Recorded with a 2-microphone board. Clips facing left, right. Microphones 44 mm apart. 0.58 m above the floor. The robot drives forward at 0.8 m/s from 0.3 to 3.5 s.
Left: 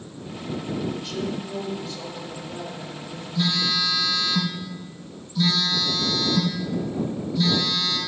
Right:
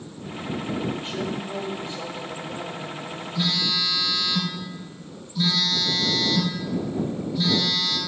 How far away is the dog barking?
No dog barking in this recording.